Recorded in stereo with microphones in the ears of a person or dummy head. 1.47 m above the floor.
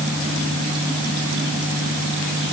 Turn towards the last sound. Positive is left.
No sound to turn to.